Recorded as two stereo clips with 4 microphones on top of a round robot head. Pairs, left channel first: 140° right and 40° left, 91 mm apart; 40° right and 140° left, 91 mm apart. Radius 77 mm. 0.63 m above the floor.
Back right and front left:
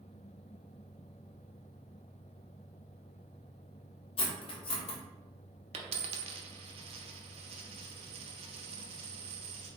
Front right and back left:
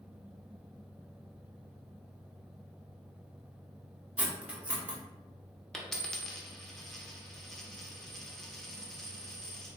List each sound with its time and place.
4.2 s cutlery clinking: 145° right, 0.9 m
5.7 s a dropped coin: 45° left, 0.7 m